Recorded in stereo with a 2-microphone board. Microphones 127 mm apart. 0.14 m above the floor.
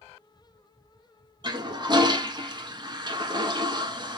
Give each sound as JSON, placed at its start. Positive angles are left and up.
{"t": 1.4, "sound": "a toilet flushing", "side_deg": -35, "distance_m": 0.8}